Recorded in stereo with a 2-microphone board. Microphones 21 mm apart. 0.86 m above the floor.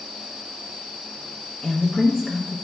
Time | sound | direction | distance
1.6 | a woman speaking | 20° left (ahead or behind) | 0.6 m